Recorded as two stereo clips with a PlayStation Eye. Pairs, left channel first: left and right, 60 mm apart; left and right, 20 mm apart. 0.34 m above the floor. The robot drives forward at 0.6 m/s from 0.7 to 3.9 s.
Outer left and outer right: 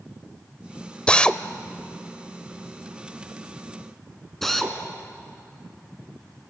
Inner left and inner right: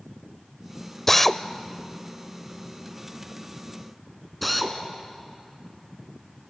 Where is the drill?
15° left (ahead or behind), 0.5 m; by 4.8 s 5° left (ahead or behind), 2 m.